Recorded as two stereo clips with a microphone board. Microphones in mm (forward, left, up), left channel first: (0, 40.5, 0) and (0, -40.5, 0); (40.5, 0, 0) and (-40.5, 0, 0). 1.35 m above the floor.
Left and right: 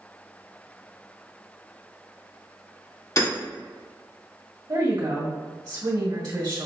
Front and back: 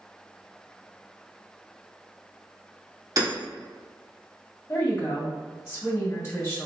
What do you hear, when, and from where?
3.2 s hammering: 140° left, 2.0 m
4.7 s a woman speaking: 60° right, 1.7 m